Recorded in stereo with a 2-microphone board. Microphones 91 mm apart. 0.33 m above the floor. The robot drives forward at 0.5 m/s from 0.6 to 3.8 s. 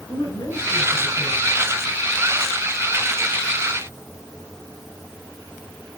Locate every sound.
0.1 s a woman speaking: 60° left (ahead or behind), 4.5 m; by 1.6 s 65° left (ahead or behind), 4 m